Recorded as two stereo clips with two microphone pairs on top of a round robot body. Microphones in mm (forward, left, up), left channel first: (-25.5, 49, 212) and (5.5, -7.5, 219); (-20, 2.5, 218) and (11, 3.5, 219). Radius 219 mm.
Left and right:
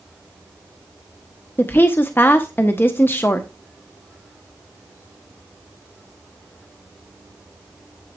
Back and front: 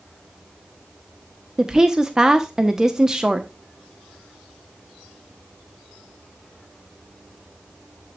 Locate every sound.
1.6 s a woman speaking: 75° left, 1.2 m